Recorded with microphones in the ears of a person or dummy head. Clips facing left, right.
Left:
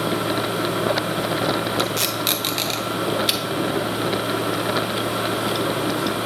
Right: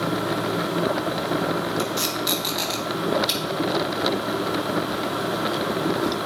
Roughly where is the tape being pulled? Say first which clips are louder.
Left 2 dB; left.